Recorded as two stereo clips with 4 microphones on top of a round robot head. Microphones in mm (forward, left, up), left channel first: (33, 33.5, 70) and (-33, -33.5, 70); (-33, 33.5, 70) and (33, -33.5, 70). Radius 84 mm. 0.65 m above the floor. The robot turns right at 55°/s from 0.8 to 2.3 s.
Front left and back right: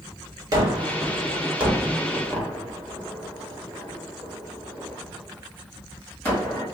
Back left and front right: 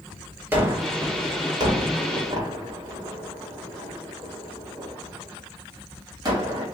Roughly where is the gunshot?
Right.